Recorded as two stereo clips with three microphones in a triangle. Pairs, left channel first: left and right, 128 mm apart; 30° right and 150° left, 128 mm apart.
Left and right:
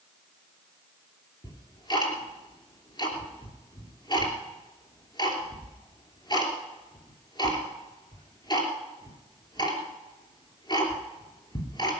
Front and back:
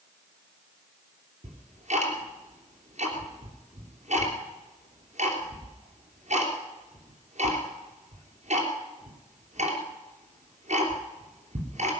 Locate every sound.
1.4 s ticking: 140° left, 3 m